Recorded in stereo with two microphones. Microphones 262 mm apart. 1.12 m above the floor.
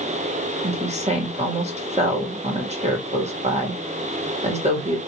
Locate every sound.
0.6 s a woman speaking: 25° right (ahead or behind), 1.9 m